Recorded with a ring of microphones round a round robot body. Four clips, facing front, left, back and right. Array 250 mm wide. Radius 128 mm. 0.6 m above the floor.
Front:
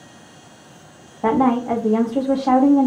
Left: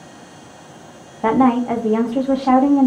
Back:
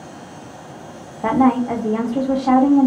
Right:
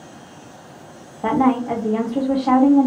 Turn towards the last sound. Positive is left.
turn(degrees=70)